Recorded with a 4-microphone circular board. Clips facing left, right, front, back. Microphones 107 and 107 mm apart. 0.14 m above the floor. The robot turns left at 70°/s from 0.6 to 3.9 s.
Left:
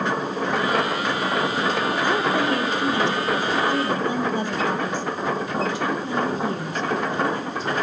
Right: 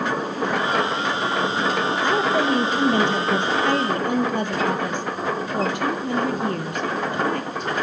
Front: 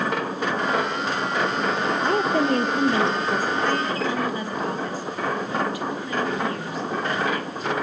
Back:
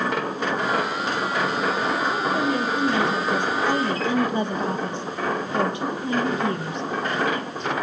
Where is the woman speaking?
15° left, 3 m; by 7.7 s 120° right, 3 m.